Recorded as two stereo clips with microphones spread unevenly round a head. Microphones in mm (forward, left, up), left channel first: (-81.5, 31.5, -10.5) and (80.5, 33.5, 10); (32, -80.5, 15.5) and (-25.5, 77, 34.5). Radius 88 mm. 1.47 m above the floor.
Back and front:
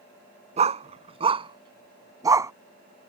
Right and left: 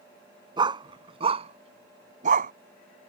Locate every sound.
0.6 s a dog barking: 45° left; by 2.5 s 70° left